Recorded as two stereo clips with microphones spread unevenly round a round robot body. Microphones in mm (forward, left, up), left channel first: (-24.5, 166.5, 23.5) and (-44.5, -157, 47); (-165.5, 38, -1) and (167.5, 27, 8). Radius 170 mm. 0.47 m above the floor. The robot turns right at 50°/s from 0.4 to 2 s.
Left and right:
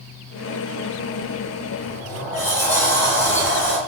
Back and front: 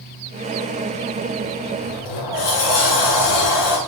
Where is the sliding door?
160° left, 1.8 m; by 3.8 s 170° left, 1.8 m.